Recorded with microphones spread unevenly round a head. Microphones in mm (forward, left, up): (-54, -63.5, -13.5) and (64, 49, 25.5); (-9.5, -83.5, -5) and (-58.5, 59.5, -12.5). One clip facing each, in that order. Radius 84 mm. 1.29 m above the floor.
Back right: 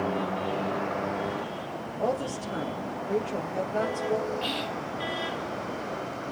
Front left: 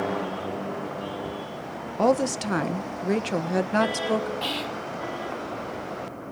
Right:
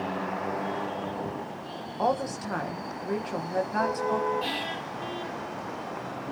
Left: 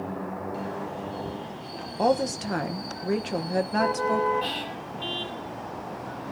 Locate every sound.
2.0 s a woman speaking: 45° left, 1.2 m
4.4 s whispering: 10° left, 4 m